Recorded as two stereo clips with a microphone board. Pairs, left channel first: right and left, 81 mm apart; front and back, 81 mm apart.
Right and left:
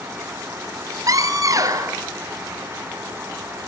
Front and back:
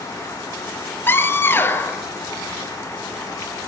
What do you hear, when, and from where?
1.1 s a scream: 60° left, 2 m